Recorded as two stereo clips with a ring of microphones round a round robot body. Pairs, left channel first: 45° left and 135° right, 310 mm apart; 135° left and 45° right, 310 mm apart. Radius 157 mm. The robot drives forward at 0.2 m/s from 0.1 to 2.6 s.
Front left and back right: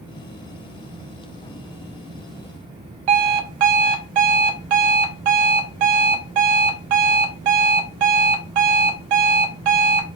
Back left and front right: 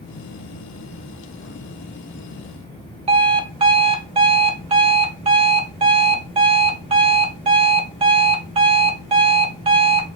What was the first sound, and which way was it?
An alarm clock, 120° right.